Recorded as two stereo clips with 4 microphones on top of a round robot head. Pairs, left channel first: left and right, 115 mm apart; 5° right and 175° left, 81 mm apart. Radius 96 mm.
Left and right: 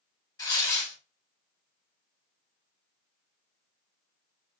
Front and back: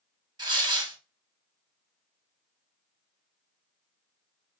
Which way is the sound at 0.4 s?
145° left.